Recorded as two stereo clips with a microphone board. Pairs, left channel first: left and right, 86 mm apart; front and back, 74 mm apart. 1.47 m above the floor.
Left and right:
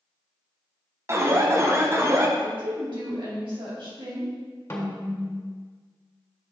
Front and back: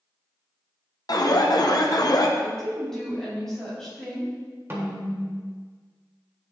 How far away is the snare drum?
About 1.5 m.